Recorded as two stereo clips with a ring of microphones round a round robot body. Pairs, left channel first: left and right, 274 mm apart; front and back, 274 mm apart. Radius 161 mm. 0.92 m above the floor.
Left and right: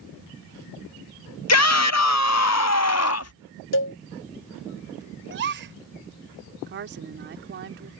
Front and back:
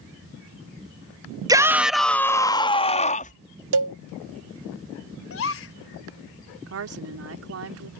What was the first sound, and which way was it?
A shout, 105° left.